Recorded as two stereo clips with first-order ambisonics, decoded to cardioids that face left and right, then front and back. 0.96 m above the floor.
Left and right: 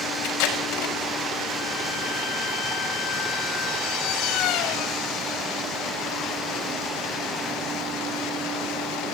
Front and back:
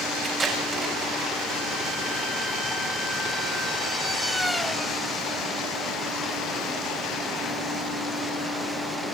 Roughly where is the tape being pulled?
Left.